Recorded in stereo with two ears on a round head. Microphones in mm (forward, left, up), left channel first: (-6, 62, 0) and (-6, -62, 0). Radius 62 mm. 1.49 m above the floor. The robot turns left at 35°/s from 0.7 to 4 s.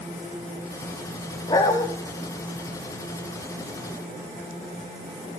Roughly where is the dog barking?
Left.